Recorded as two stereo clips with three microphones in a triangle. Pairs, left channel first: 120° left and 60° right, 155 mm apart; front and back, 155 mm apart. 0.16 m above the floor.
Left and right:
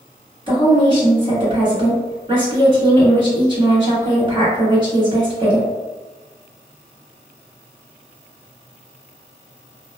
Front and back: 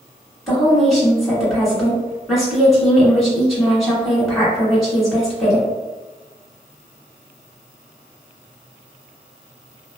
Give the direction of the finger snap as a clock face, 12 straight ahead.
No finger snap in this recording.